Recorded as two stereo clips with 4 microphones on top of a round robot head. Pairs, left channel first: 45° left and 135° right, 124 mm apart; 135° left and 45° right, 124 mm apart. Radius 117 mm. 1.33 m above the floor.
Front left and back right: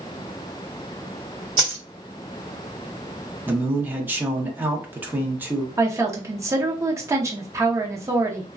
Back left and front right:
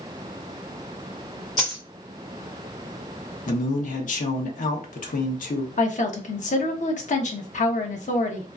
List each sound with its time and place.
1.6 s a dropped coin: 170° right, 0.6 m
3.5 s a man speaking: 150° left, 0.7 m
5.8 s a woman speaking: 155° left, 0.7 m